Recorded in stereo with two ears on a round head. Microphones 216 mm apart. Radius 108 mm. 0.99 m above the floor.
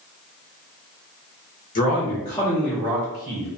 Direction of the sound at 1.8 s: 35° left (ahead or behind).